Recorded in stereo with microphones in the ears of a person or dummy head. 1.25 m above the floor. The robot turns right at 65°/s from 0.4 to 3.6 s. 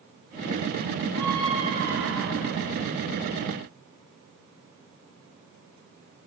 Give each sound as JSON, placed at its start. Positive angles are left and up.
{"t": 1.1, "sound": "a scream", "azimuth_deg": -175, "distance_m": 3.0}